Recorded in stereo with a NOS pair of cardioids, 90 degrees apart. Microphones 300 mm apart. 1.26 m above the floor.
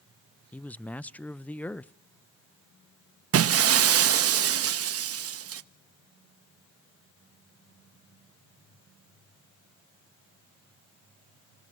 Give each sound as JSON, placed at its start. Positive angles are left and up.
{"t": 0.5, "sound": "a man speaking", "azimuth_deg": 5, "distance_m": 0.5}
{"t": 3.3, "sound": "breaking glass", "azimuth_deg": -50, "distance_m": 1.0}